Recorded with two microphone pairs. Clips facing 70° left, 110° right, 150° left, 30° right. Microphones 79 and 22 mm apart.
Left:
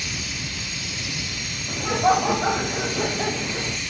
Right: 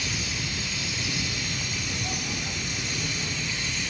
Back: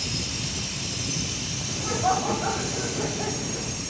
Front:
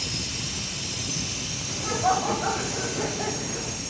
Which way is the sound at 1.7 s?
55° left.